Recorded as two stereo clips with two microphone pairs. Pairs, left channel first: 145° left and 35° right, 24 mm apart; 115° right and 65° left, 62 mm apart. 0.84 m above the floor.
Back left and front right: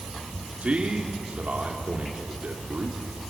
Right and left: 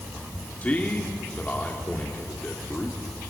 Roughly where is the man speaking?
Ahead right.